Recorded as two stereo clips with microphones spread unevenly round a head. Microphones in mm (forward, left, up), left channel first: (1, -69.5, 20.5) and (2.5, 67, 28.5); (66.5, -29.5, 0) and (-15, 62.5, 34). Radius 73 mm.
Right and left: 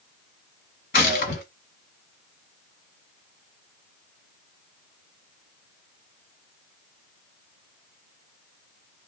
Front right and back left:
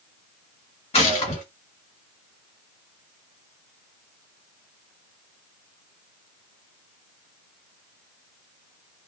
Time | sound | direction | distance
0.9 | a gunshot | 105° right | 1.5 m